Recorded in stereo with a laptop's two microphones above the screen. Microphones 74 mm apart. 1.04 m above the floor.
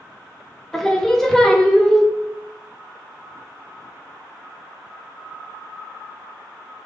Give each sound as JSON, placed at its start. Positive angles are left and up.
{"t": 0.7, "sound": "singing", "side_deg": 5, "distance_m": 0.6}